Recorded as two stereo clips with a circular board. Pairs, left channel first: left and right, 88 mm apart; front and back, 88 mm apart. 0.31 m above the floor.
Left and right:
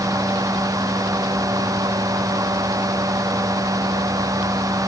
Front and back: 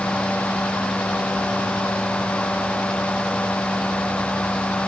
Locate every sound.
Only background noise.